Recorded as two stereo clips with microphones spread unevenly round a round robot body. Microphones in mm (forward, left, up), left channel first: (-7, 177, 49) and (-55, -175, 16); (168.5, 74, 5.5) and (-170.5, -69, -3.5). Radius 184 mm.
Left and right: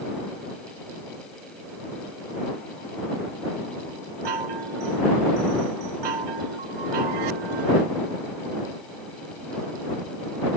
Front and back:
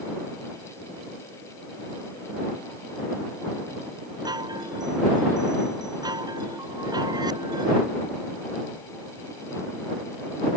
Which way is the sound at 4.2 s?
80° right.